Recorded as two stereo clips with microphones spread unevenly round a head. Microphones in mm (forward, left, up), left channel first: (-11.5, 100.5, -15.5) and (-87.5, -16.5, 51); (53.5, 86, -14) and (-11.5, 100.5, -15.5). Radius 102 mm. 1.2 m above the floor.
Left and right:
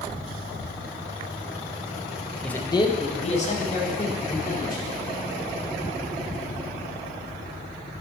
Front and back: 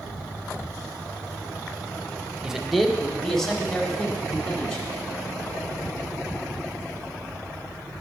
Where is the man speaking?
95° left, 0.6 m; by 4.9 s 70° left, 3.5 m.